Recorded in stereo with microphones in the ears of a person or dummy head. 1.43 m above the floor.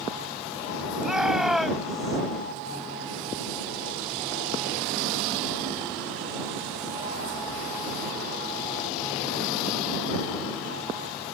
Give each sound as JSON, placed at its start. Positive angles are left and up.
{"t": 1.0, "sound": "a shout", "side_deg": -10}